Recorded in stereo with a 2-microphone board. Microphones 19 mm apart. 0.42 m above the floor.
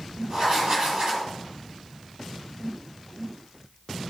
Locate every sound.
0.3 s writing: 50° right (ahead or behind), 2.5 m